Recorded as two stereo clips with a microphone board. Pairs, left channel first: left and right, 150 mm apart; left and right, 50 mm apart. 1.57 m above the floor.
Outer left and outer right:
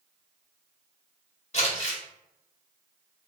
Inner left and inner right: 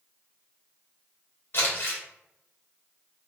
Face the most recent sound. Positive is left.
turn(degrees=50)  # may be behind; listen again after turning